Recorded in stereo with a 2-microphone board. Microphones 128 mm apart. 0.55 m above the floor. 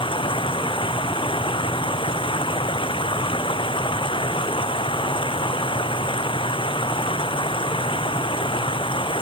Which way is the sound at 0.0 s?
45° left (ahead or behind).